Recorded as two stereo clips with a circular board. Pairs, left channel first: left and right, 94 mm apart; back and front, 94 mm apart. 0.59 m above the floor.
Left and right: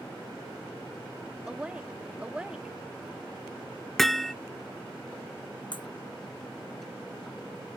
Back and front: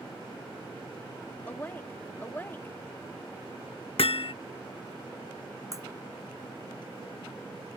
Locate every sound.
1.5 s a woman speaking: 155° right
4.0 s hammering: 175° left
5.7 s breaking glass: 55° left